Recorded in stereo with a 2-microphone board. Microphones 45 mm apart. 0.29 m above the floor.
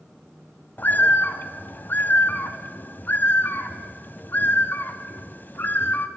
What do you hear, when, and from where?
0.8 s a bird: 45° left (ahead or behind), 1.2 m